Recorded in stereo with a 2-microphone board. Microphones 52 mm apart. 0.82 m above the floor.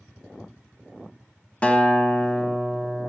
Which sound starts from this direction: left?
A guitar, at 1.6 s.